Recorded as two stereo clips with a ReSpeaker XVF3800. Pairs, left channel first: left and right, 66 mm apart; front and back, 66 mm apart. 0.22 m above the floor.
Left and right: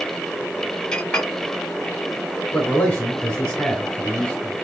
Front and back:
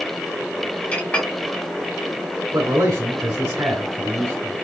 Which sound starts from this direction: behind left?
A man speaking, at 2.5 s.